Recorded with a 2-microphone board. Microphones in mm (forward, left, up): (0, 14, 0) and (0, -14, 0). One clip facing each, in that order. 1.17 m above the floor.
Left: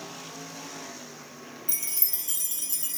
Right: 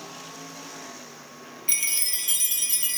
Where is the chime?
60° right (ahead or behind), 0.5 m.